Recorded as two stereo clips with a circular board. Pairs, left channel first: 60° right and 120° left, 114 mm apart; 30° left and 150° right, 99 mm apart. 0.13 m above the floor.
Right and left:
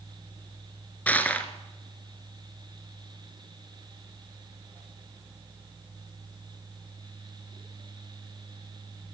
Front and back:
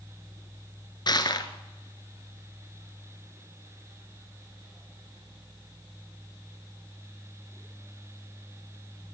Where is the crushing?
15° left, 1.5 m.